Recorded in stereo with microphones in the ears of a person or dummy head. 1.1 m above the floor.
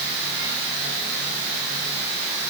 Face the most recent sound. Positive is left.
No sound to turn to.